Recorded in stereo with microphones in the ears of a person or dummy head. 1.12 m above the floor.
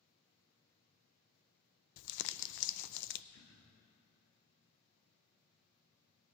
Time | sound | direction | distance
2.0 | crumpling | 65° left (ahead or behind) | 0.5 m
3.3 | throat clearing | 55° left (ahead or behind) | 2.5 m